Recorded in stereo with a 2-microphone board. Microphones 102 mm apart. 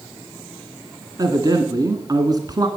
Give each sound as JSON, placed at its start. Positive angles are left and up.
{"t": 1.2, "sound": "a man speaking", "side_deg": -40, "distance_m": 1.9}